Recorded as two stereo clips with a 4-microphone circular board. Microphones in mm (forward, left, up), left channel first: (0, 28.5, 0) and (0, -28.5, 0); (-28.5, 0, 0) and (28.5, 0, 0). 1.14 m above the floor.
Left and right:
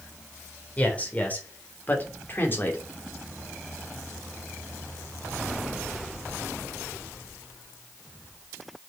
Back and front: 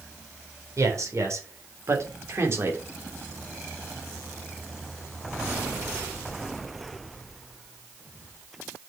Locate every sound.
0.8 s a man speaking: 25° left, 3.5 m; by 2.8 s 40° left, 2.5 m